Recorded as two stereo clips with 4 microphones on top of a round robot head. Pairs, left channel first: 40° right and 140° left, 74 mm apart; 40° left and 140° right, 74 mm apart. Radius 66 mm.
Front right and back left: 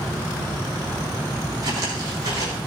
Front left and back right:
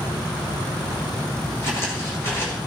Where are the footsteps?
100° left, 3.5 m.